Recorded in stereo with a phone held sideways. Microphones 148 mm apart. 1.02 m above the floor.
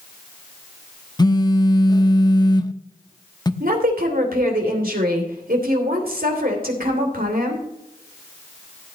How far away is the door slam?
No door slam in this recording.